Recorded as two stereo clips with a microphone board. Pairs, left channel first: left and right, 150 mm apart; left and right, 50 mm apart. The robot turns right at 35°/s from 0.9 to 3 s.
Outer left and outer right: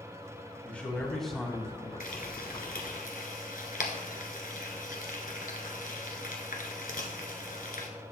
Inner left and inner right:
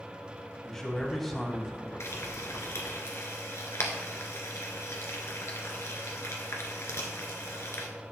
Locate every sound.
0.6 s a man speaking: 165° left, 1.6 m; by 1.9 s 160° right, 1.6 m
2.0 s frying: 65° left (ahead or behind), 1.4 m